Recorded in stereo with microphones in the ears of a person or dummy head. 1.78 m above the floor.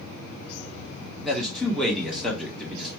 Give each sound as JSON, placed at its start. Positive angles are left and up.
{"t": 1.2, "sound": "a man speaking", "side_deg": 0, "distance_m": 1.3}